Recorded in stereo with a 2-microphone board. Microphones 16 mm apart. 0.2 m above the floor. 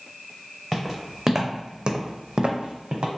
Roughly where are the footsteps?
Centre.